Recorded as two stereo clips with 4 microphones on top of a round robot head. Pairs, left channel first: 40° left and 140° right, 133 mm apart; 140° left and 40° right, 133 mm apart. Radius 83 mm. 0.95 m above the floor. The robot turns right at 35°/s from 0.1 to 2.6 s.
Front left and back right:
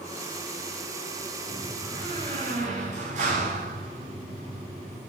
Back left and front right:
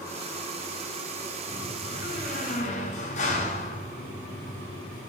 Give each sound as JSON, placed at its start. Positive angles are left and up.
{"t": 1.5, "sound": "a door slam", "azimuth_deg": 140, "distance_m": 7.0}